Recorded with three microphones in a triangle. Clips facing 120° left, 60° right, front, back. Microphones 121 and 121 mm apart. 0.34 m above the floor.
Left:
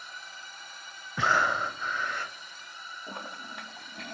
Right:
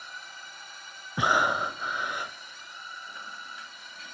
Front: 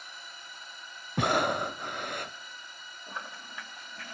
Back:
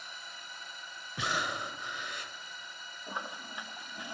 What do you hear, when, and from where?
1.2 s breathing: 15° left, 0.5 m
3.1 s a toilet flushing: 105° left, 0.7 m